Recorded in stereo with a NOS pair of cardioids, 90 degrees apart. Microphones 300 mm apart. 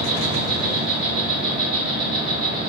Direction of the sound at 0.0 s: 25° right.